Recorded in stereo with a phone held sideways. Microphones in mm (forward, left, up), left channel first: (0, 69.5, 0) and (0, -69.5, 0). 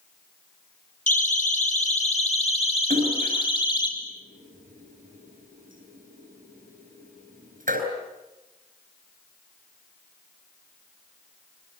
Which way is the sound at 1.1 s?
60° left (ahead or behind).